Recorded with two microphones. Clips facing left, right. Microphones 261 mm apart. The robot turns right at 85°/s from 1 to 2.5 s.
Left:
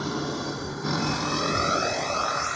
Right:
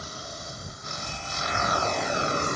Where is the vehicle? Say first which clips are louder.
Left 14 dB; 85° left; by 2.6 s 45° right (ahead or behind).